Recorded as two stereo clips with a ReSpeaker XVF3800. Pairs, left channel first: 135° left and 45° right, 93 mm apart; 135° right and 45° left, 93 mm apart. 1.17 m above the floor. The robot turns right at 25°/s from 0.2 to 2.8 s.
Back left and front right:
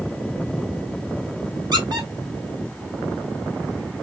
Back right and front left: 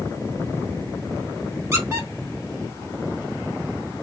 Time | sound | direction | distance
1.7 | a squeak | 15° right | 1.3 m